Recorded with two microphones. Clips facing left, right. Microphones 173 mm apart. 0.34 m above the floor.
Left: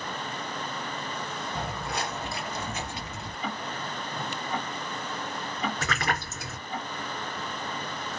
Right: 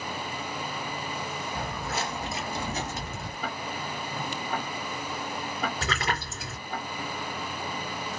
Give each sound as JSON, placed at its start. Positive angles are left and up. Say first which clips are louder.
{"t": 1.6, "sound": "footsteps", "louder": "even", "side_deg": 10, "distance_m": 1.1}
{"t": 3.4, "sound": "ticking", "louder": "left 1 dB", "side_deg": -50, "distance_m": 1.4}
{"t": 5.8, "sound": "a splash", "louder": "even", "side_deg": -35, "distance_m": 3.0}